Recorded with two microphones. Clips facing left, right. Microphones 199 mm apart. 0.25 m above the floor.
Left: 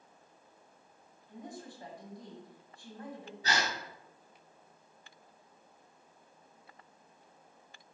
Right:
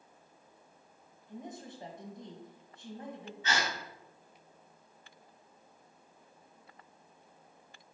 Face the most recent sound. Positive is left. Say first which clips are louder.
# left 1 dB
turn(degrees=40)  # may be behind; listen again after turning